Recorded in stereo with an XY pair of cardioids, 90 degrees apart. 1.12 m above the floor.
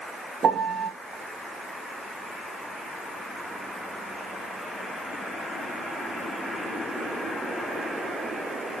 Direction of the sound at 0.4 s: 60° right.